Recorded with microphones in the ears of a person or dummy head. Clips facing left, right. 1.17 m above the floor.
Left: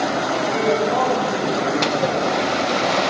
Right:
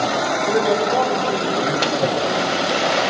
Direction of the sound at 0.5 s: 55° right (ahead or behind).